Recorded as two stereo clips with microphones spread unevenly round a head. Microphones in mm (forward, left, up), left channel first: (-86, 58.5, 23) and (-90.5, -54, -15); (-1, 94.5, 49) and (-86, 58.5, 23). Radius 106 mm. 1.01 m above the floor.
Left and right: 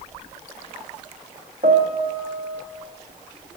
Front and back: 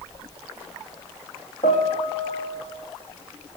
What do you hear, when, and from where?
1.6 s a piano: 30° right, 0.7 m